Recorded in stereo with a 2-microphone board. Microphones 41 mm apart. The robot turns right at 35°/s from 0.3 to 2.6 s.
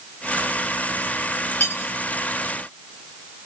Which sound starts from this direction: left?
Cutlery clinking, at 1.6 s.